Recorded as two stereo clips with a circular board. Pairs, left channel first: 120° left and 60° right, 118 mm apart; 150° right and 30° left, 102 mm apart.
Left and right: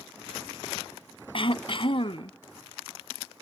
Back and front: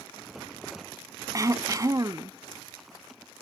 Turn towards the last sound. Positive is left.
turn(degrees=85)